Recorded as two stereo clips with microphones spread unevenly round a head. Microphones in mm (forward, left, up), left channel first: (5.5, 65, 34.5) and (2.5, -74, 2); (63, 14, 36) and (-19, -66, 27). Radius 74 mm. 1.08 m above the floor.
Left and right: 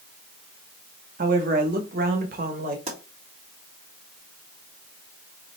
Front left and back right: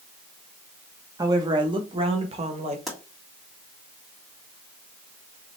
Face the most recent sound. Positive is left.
turn(degrees=-50)